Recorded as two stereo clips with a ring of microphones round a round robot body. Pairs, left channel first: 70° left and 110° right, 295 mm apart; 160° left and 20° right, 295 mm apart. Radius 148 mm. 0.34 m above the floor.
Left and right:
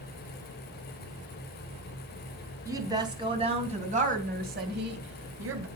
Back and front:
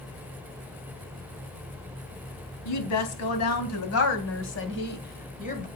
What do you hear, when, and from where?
2.6 s a woman speaking: 170° left, 3 m; by 5.7 s 140° right, 2 m